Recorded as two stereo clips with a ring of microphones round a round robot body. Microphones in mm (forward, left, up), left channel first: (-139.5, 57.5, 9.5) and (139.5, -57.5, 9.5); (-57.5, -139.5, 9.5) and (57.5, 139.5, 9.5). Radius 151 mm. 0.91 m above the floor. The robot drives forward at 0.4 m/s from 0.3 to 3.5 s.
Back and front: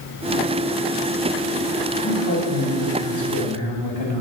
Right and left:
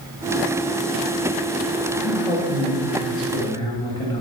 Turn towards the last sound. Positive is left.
turn(degrees=175)